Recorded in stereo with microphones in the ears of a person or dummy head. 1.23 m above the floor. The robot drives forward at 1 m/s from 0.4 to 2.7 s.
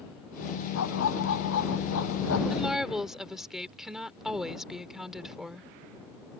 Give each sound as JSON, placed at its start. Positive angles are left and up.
{"t": 0.8, "sound": "a dog barking", "side_deg": 70}
{"t": 2.5, "sound": "a woman speaking", "side_deg": -5}